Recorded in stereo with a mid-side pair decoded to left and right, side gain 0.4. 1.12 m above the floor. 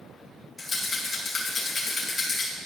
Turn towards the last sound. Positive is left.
turn(degrees=35)